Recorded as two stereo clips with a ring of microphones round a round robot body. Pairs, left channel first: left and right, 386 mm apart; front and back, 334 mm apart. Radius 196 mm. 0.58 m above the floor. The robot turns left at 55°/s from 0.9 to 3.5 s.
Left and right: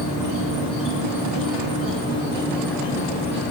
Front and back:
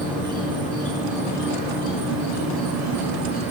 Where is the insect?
85° right, 3 m; by 3.5 s 130° left, 3 m.